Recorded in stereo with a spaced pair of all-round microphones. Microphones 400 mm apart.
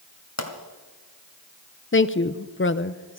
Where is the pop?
40° left (ahead or behind), 2.0 m.